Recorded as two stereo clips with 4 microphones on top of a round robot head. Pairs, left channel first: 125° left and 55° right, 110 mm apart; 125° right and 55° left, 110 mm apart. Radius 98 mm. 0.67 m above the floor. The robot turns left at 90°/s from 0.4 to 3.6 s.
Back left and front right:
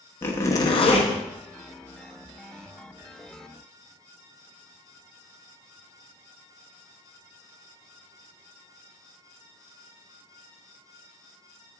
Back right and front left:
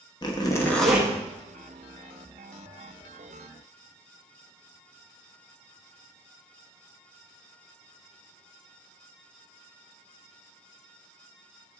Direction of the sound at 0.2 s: 170° right.